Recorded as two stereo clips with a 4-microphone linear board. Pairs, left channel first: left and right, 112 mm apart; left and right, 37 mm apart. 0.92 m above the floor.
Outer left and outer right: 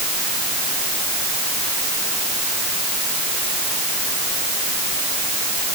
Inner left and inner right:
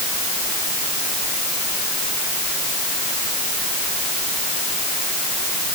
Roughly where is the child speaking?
I don't hear a child speaking.